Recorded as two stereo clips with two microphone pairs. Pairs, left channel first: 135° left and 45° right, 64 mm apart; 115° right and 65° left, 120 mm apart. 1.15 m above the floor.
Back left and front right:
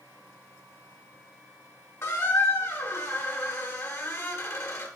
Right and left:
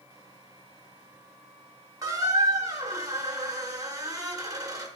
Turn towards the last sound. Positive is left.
turn(degrees=115)